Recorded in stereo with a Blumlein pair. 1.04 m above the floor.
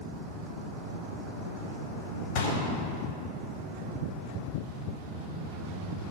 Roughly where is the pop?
Ahead left.